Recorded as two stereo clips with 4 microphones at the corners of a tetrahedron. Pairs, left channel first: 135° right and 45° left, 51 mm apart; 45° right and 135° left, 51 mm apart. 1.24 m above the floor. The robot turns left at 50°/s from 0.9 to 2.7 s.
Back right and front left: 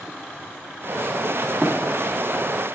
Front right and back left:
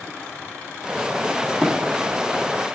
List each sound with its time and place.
1.6 s running footsteps: 35° left, 1.2 m; by 1.7 s 30° left, 1.2 m